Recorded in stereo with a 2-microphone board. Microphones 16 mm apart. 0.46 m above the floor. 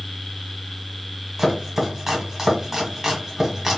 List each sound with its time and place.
1.4 s chopping: 30° right (ahead or behind), 1.7 m